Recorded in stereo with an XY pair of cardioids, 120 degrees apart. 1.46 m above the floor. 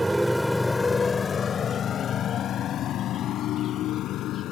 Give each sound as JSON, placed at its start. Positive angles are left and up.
{"t": 0.0, "sound": "a motorcycle", "azimuth_deg": -15}